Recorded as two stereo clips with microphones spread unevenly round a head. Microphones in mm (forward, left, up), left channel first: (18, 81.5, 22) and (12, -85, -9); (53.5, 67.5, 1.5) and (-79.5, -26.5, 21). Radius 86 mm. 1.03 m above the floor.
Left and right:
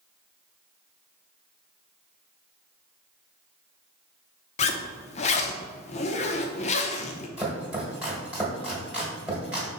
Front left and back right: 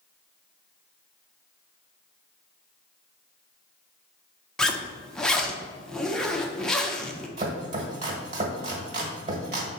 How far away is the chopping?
About 1.3 m.